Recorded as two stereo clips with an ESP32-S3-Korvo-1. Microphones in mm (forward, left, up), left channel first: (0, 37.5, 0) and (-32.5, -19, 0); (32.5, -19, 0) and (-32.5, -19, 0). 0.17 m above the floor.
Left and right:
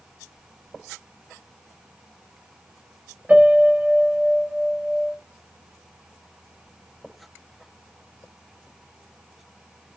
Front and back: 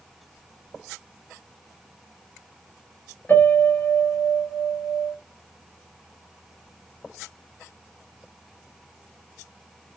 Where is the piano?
55° right, 1.7 m.